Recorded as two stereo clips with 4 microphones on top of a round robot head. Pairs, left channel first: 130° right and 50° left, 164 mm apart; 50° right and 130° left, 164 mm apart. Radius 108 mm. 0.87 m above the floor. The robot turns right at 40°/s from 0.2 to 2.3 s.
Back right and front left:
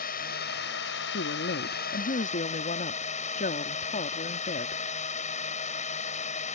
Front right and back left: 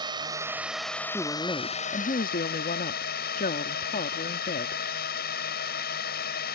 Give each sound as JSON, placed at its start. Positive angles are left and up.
{"t": 0.0, "sound": "a drone", "azimuth_deg": -165}
{"t": 1.1, "sound": "a woman speaking", "azimuth_deg": -135}